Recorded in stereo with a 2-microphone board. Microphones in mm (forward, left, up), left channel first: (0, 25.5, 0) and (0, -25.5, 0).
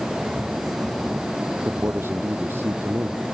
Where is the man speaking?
45° right (ahead or behind).